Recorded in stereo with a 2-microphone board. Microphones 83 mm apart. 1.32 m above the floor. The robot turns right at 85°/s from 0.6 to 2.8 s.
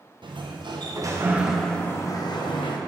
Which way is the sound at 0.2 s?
85° right.